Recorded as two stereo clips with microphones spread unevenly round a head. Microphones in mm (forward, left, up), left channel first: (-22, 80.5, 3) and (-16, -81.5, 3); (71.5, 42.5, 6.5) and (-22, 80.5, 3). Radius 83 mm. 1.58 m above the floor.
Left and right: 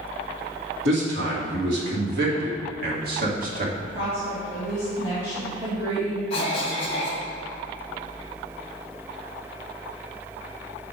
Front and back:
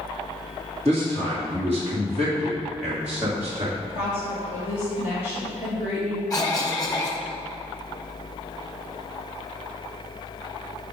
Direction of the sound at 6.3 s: 30° left.